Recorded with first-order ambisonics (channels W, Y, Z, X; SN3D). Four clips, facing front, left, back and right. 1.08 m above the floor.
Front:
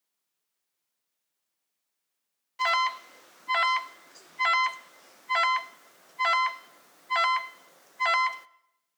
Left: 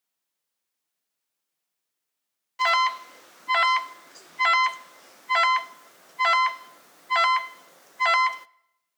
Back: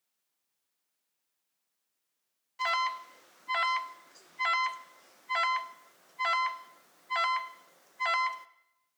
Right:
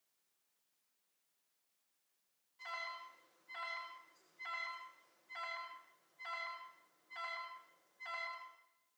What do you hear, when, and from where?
2.6 s an alarm: 75° left, 0.5 m